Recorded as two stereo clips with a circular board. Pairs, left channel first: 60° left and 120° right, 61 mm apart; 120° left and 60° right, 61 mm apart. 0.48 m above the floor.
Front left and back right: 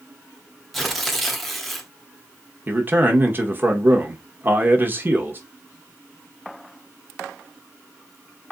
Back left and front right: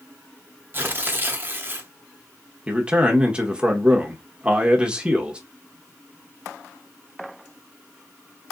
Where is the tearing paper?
30° right, 0.8 m.